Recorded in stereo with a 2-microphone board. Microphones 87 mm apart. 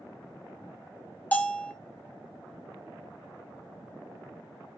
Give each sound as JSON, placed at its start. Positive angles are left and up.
{"t": 1.3, "sound": "a bell", "side_deg": 15, "distance_m": 0.7}